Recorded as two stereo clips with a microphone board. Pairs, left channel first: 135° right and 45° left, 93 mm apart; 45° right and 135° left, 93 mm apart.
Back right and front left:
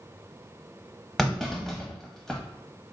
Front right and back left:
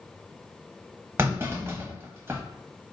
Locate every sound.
1.2 s a clunk: 140° left, 0.8 m